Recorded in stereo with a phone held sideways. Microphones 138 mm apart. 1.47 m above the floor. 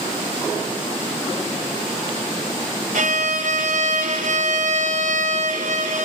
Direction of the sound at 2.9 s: 75° right (ahead or behind).